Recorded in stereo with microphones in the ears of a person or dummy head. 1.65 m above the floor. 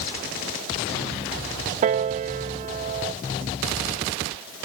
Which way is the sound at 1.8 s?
40° right (ahead or behind).